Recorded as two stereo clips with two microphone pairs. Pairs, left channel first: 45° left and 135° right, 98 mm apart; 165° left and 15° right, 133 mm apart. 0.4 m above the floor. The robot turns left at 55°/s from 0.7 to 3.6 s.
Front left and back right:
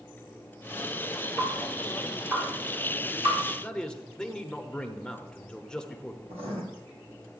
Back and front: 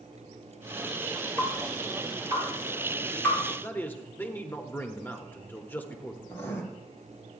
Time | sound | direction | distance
1.4 | dripping | 15° right | 5 m
3.6 | a man speaking | 115° left | 0.9 m
6.3 | writing | 120° right | 2 m